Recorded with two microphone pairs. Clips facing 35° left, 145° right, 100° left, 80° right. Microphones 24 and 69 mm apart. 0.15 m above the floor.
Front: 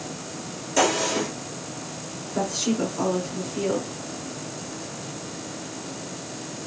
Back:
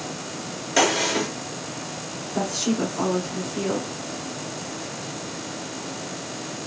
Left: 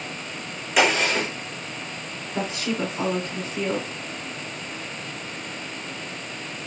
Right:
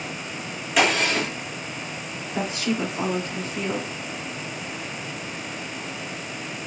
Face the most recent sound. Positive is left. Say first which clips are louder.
# even, right 1 dB
turn(degrees=-150)